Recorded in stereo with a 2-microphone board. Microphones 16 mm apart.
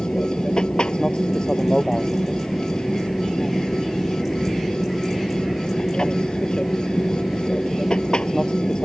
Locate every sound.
0.0 s an aircraft: 60° left (ahead or behind)